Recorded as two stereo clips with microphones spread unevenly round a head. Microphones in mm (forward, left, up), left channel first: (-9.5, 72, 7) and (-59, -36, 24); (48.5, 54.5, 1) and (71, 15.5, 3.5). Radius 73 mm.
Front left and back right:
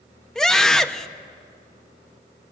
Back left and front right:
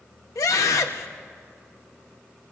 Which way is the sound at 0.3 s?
150° left.